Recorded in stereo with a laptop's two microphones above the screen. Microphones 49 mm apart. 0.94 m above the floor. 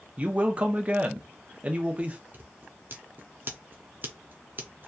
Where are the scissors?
45° right (ahead or behind), 0.5 m.